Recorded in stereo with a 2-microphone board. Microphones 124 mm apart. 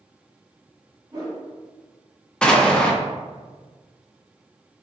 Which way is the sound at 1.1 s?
30° right (ahead or behind).